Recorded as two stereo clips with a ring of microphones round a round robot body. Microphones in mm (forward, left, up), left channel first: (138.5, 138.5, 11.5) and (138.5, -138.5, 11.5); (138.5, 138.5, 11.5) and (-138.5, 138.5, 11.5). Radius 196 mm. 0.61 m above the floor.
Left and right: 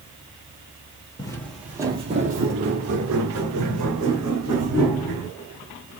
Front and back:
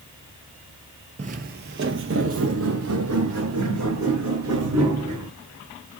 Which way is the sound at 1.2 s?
150° left.